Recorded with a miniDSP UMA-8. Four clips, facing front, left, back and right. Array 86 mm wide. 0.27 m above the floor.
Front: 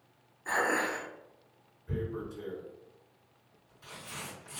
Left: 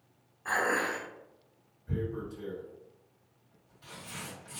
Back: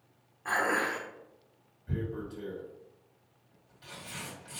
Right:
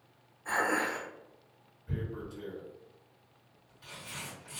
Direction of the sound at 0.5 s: 150° left.